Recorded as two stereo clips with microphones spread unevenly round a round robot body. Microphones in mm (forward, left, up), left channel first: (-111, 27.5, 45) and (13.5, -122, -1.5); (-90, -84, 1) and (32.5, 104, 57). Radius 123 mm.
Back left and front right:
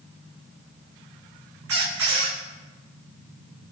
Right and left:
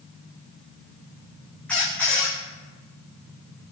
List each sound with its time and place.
1.7 s a squeak: 35° right, 5.5 m